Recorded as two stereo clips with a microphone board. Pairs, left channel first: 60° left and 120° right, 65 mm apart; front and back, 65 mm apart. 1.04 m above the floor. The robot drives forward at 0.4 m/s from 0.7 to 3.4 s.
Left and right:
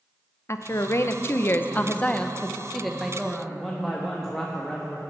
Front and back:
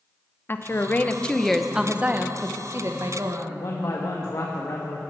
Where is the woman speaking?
40° left, 0.6 m; by 3.6 s 155° left, 0.9 m.